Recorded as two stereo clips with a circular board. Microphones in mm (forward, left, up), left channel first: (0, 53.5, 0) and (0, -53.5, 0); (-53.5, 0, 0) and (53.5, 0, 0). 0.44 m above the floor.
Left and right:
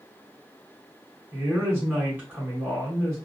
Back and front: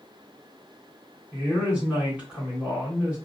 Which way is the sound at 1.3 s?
60° right.